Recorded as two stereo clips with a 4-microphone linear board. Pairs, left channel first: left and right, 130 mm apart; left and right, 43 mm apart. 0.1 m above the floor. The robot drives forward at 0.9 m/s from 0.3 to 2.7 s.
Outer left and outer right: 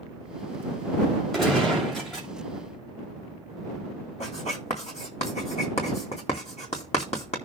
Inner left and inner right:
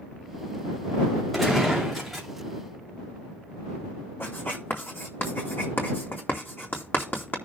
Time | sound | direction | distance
1.3 | a gunshot | 5° left (ahead or behind) | 7 m
4.2 | writing | 60° left (ahead or behind) | 4 m